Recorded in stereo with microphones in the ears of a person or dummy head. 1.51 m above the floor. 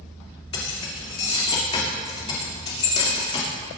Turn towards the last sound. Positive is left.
turn(degrees=30)  # may be behind; listen again after turning